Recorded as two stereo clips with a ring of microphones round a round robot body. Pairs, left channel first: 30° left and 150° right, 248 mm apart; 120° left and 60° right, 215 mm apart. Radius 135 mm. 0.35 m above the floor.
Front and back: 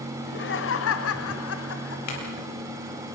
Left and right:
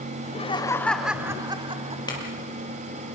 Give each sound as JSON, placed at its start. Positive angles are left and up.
{"t": 0.2, "sound": "laughter", "azimuth_deg": 75, "distance_m": 1.8}
{"t": 2.1, "sound": "a clink", "azimuth_deg": 50, "distance_m": 6.5}